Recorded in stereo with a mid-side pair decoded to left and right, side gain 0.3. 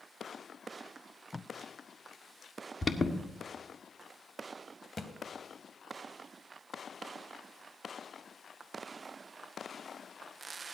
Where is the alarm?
40° left, 2.0 m.